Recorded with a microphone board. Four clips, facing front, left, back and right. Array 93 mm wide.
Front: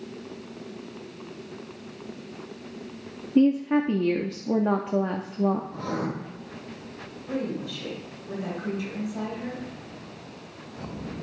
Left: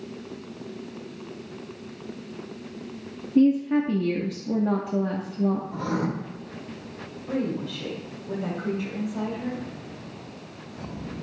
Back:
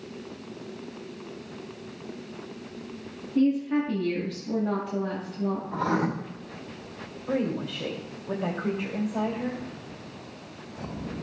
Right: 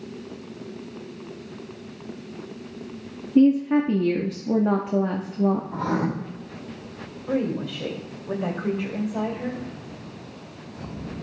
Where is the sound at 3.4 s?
40° right, 0.7 m.